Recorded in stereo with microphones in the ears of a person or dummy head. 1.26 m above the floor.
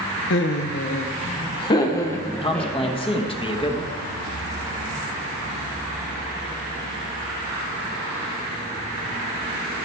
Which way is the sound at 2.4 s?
20° left (ahead or behind).